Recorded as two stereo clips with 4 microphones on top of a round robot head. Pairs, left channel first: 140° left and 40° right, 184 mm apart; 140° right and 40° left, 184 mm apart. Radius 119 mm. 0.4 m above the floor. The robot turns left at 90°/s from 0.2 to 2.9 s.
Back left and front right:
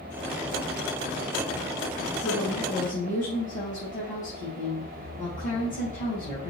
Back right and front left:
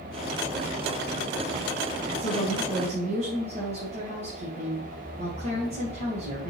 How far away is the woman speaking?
About 3 m.